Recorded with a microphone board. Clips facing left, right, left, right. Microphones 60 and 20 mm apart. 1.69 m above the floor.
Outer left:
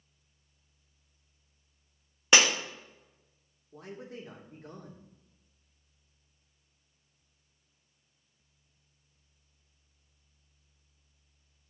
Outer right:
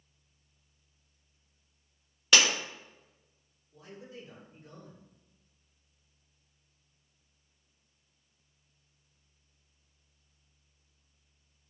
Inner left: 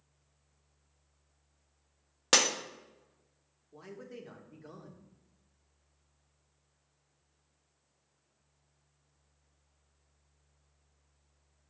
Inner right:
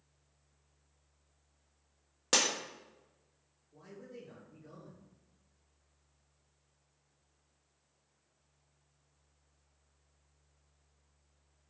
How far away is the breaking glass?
About 1.4 m.